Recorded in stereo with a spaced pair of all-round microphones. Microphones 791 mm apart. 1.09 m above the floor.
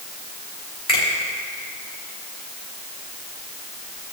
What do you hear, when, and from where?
0.9 s a finger snap: 30° left (ahead or behind), 3 m